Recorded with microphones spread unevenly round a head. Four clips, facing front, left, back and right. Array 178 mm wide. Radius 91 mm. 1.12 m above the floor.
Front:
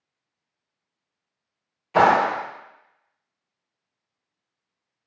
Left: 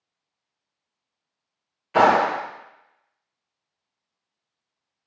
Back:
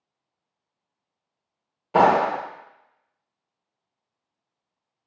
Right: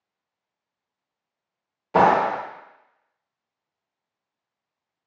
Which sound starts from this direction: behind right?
A clap, at 1.9 s.